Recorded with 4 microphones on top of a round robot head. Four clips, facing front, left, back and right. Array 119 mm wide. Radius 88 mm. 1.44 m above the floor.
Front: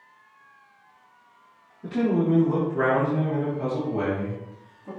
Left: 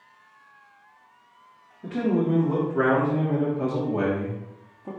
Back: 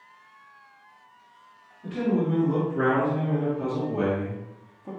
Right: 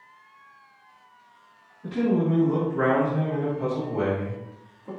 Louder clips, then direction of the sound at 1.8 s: Even, front 3 dB; 60° left.